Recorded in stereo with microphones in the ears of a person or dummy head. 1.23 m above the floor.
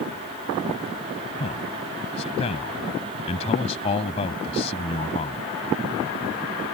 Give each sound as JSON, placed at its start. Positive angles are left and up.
{"t": 1.4, "sound": "a man speaking", "side_deg": 30}